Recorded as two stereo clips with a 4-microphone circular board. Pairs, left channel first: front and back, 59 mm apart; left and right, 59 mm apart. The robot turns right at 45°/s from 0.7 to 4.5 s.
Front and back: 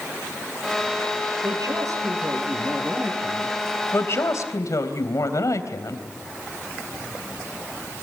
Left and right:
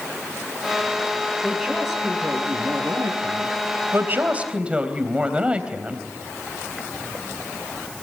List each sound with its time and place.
1.4 s a woman speaking: 165° left, 8 m; by 3.6 s 100° right, 8 m
3.9 s a woman speaking: 45° right, 3.5 m; by 6.1 s 20° right, 3.5 m